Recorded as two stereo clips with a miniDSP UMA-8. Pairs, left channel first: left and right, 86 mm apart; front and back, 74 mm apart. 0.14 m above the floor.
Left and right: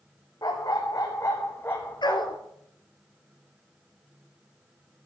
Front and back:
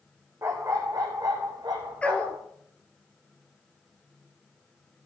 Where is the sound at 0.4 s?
130° left, 1.9 m; by 2.4 s 165° left, 2 m.